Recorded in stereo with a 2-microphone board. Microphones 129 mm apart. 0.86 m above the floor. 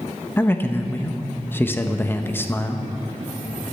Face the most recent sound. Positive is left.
turn(degrees=15)  # may be behind; listen again after turning